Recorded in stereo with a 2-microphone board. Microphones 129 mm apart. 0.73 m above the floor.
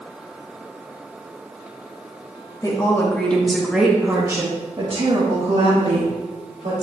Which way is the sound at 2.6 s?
30° left (ahead or behind).